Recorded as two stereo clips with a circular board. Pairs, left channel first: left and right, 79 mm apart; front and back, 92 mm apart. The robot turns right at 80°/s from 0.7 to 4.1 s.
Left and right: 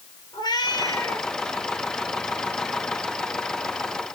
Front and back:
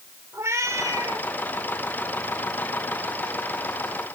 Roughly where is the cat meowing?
Behind left.